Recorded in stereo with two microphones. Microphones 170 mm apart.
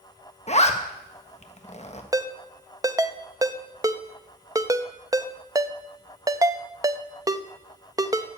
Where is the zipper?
40° left (ahead or behind), 1.3 m.